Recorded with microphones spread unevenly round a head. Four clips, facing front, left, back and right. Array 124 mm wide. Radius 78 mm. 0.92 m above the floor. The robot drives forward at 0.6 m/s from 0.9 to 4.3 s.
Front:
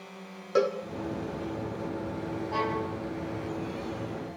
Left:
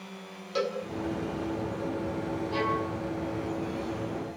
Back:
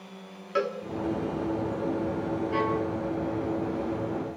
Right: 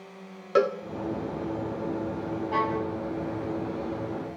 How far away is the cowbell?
About 1.6 m.